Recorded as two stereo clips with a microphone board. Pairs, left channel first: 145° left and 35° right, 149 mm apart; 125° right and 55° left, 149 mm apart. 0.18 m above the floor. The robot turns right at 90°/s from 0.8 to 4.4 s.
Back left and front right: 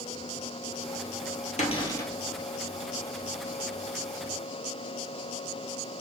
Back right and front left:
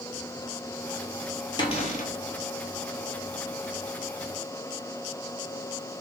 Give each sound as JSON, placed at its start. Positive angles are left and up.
{"t": 1.6, "sound": "a cupboard door", "azimuth_deg": 180, "distance_m": 1.2}